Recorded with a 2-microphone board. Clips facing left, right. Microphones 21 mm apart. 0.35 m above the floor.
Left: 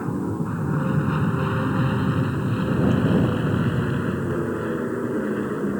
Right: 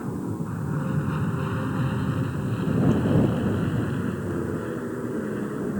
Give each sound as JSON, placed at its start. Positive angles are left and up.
{"t": 0.0, "sound": "an aircraft", "side_deg": 20}